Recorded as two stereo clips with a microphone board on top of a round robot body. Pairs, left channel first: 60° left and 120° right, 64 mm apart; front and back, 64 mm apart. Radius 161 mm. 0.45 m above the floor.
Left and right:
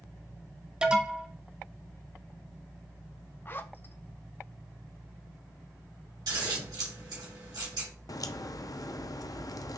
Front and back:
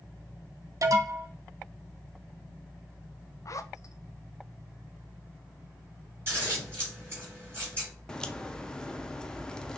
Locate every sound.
0.8 s an alarm: 165° left, 0.9 m
3.5 s a zipper: 15° left, 0.5 m
6.3 s scissors: 125° right, 2 m
8.1 s a crack: 80° left, 0.5 m